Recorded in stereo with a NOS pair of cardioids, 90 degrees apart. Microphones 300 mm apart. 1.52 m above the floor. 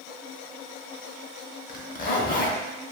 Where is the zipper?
30° left, 0.7 m.